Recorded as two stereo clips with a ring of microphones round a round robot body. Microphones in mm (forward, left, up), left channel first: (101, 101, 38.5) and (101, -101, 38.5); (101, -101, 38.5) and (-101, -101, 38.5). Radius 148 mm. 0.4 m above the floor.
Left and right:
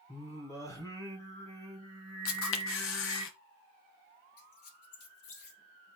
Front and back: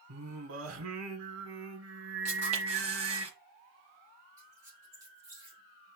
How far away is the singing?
About 1.3 m.